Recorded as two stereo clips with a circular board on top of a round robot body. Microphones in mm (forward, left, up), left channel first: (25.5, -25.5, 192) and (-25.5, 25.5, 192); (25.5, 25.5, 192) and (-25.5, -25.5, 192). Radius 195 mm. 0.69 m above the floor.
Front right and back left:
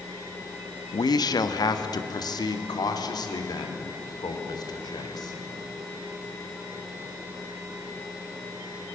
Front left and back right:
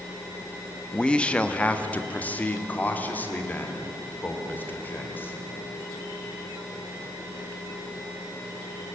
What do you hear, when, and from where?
0.9 s a man speaking: 30° right, 1.1 m; by 5.4 s 20° right, 3.5 m